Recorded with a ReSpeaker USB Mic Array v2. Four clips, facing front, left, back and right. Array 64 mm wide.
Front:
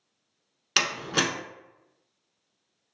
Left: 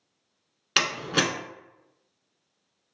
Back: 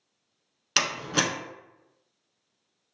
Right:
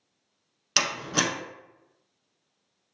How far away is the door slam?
About 0.7 m.